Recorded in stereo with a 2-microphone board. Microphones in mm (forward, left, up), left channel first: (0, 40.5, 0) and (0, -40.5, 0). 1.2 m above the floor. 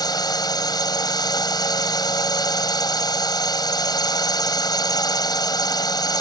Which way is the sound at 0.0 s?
55° left (ahead or behind).